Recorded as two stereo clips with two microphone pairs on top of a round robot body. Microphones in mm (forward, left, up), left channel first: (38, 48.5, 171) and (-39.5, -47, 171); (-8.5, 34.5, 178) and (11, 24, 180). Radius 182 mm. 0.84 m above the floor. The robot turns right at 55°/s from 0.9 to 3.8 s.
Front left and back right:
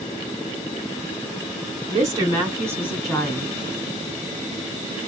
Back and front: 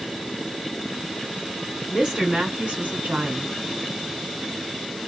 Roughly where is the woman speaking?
Right.